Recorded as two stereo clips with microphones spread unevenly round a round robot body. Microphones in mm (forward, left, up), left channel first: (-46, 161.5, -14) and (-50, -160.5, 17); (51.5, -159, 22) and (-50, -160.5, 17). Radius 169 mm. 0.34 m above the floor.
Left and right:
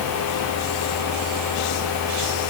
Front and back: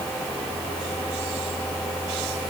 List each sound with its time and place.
Only background noise.